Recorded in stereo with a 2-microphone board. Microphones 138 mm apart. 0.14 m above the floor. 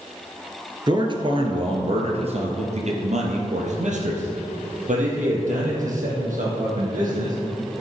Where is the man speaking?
35° right (ahead or behind), 2 m; by 7.4 s 75° right (ahead or behind), 5.5 m.